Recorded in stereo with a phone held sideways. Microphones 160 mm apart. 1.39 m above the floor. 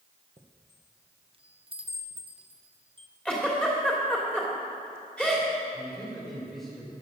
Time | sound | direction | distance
0.4 | a chime | 35° right (ahead or behind) | 0.9 m
3.2 | a giggle | 5° left (ahead or behind) | 3 m
5.7 | a man speaking | centre (ahead or behind) | 4.5 m